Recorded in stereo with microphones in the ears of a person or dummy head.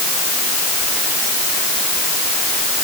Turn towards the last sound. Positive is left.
No sound to turn to.